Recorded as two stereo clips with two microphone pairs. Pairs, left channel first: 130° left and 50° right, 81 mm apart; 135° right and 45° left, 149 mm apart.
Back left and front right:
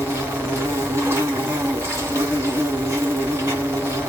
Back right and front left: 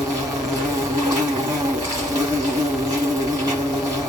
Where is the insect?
10° right, 2 m.